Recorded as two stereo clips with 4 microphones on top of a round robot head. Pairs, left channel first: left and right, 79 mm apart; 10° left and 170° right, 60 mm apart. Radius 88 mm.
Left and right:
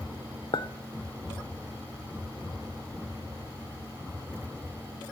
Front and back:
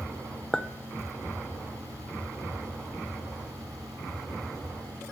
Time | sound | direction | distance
0.5 | a clink | 85° left | 0.8 m